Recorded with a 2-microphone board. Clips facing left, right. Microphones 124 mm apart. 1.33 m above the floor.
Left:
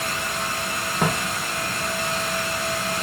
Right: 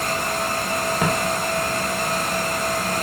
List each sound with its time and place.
1.0 s footsteps: centre (ahead or behind), 1.8 m; by 3.0 s 10° right (ahead or behind), 1.5 m